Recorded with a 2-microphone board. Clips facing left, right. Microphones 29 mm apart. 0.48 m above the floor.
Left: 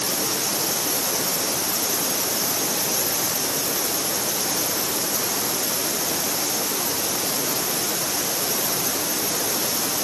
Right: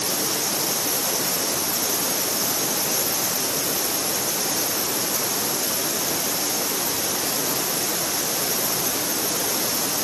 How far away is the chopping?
No chopping in this recording.